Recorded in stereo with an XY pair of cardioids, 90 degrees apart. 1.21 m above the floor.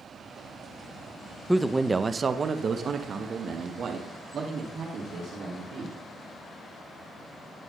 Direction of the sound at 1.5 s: Straight ahead.